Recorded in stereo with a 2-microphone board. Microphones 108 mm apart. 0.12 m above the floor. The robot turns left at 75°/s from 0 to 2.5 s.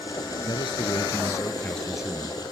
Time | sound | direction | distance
0.5 | a man speaking | 110° left | 1.5 m